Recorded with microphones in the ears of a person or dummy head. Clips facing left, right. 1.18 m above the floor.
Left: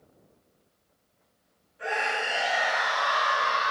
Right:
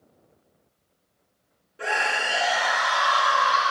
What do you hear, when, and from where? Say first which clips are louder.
1.8 s a scream: right 2 dB; 80° right, 2 m